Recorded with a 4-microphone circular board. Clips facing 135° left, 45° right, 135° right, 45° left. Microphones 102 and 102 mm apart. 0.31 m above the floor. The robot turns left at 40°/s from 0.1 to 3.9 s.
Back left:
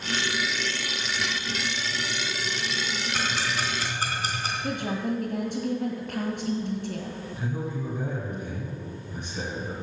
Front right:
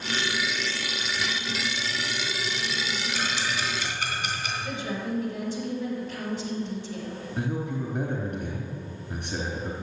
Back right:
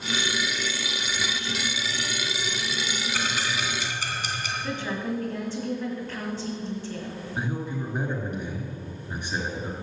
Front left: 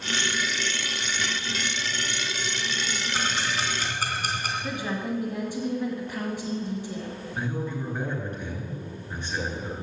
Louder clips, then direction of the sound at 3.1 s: Back left 2 dB, front left 1 dB; 115° left.